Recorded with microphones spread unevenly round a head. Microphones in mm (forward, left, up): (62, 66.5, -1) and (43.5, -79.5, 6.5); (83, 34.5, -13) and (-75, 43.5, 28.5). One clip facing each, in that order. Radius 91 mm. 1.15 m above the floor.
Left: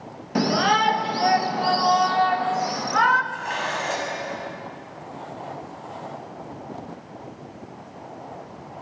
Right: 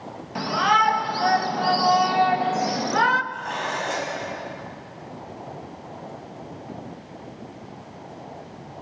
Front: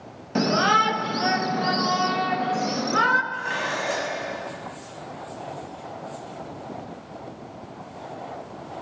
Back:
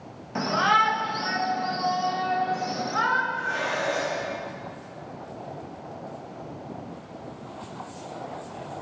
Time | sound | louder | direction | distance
0.3 | a shout | left 2 dB, front 3 dB | 45° left | 1.2 m
3.3 | dishes clattering | even, even | straight ahead | 5.5 m